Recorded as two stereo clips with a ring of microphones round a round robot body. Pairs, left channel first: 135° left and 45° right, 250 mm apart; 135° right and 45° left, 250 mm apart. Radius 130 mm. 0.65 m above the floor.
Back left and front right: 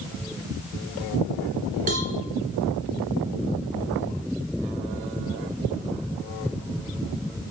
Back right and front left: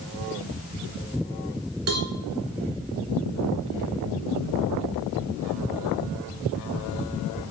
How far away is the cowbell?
About 2.5 m.